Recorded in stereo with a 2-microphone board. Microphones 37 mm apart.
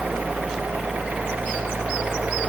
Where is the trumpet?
I don't hear a trumpet.